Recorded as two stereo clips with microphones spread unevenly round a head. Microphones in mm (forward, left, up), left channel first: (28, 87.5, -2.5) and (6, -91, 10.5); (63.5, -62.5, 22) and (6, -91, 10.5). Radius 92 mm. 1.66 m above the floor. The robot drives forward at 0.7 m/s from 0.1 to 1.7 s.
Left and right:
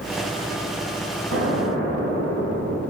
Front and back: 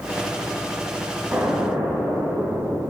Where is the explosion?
95° right, 3 m; by 2.8 s 100° right, 3 m.